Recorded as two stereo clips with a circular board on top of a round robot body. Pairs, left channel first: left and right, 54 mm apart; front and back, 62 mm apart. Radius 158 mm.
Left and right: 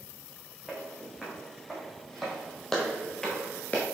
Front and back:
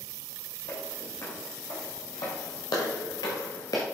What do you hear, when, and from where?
0.7 s footsteps: 5° left, 3 m; by 3.8 s 40° left, 0.5 m